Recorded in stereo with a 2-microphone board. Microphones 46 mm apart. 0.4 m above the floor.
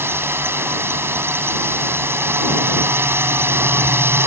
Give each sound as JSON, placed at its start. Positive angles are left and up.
{"t": 0.0, "sound": "a drone", "side_deg": -60}